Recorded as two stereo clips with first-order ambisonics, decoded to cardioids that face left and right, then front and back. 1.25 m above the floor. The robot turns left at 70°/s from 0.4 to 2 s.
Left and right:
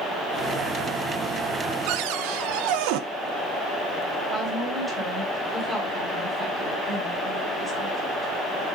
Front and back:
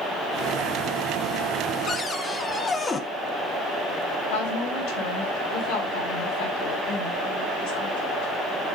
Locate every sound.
1.9 s a cupboard door: 65° right, 0.8 m; by 3.0 s 75° right, 0.8 m
4.3 s a woman speaking: 5° right, 4.5 m